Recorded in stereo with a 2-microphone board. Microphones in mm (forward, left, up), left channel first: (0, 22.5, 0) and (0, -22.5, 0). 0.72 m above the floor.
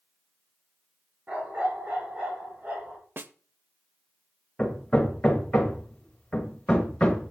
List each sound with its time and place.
1.3 s a dog barking: 30° right (ahead or behind), 4.5 m
3.2 s a snare drum: 50° right (ahead or behind), 0.6 m
4.6 s hammering: 15° left (ahead or behind), 1.9 m